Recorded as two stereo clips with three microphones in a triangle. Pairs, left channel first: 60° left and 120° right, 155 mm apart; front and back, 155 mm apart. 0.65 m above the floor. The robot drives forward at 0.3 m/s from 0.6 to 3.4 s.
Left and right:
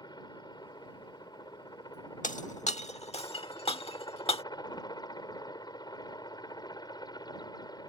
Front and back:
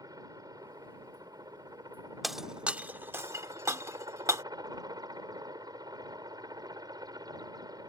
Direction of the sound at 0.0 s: 120° left.